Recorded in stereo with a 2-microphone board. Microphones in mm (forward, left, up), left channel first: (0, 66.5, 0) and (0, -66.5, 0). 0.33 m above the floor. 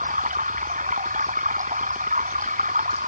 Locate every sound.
0.0 s running water: 80° right